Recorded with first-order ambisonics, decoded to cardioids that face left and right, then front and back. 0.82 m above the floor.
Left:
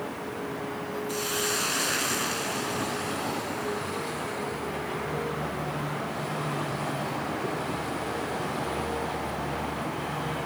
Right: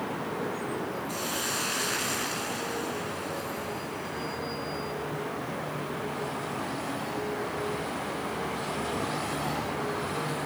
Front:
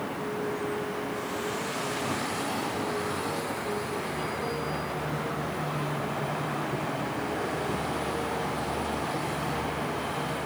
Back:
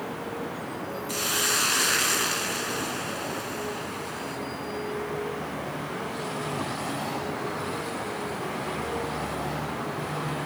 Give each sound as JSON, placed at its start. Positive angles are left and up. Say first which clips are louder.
{"t": 1.1, "sound": "a hiss", "louder": "left 4 dB, back 6 dB", "azimuth_deg": 170, "distance_m": 3.0}